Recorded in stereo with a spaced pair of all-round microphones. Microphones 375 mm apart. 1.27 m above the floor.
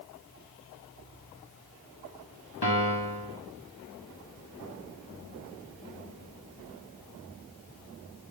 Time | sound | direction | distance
2.6 | a piano | 85° left | 3 m